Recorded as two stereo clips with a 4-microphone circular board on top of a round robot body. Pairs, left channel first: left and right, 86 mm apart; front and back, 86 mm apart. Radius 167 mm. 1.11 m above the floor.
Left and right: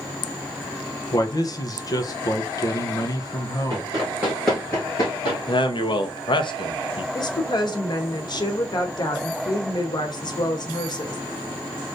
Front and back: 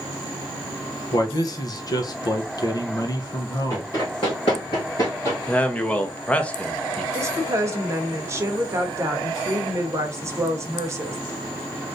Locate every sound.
1.1 s a man speaking: 45° left, 0.7 m
3.7 s running footsteps: 55° right, 1.4 m; by 5.4 s 65° left, 1.5 m
5.5 s a man speaking: 75° left, 0.9 m
7.1 s a woman speaking: 125° left, 1.0 m